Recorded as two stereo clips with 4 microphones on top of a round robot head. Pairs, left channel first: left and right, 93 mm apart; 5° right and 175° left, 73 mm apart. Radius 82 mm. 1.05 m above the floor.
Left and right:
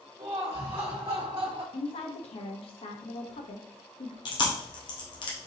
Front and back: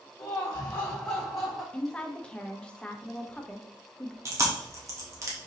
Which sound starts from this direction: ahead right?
Laughter, at 0.2 s.